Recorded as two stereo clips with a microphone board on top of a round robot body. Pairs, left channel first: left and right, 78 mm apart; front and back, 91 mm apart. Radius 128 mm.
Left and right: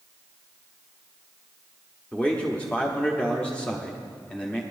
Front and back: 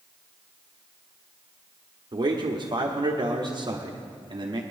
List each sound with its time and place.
2.1 s a man speaking: 165° left, 1.3 m